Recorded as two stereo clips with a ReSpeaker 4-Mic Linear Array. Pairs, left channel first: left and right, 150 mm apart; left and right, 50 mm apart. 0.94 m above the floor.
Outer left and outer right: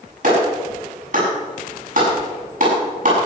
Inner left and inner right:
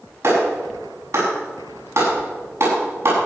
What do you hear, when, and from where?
0.2 s a clap: 55° right (ahead or behind), 7 m